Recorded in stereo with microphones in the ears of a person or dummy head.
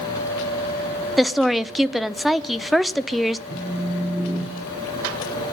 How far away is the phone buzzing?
About 2.5 m.